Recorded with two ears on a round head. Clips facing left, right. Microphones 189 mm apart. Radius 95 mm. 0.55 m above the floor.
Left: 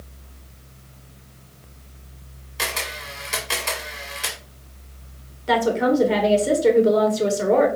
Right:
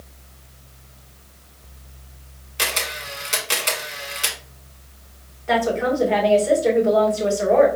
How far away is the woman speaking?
About 1.2 m.